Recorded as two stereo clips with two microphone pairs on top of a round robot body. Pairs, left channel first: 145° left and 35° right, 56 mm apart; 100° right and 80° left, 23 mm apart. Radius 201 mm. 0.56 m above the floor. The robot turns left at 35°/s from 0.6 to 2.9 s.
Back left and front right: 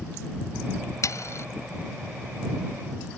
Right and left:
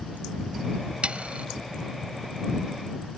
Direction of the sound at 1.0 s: 125° left.